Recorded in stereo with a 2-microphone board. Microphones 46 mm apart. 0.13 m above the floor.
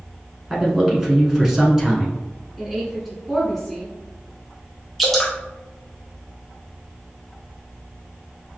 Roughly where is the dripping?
Centre.